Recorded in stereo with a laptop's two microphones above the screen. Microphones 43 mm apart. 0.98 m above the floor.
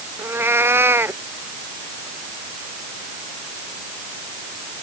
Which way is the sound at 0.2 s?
65° right (ahead or behind).